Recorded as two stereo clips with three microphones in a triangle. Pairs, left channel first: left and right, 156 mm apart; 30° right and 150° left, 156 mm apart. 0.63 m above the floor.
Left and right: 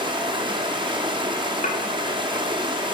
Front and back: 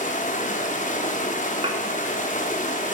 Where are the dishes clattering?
105° left, 0.9 m.